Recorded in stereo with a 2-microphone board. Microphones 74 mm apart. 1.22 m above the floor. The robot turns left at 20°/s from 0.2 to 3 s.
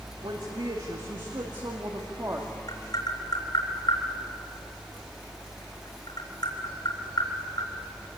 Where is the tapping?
55° left (ahead or behind), 3.5 m; by 7.7 s 65° left (ahead or behind), 3.5 m.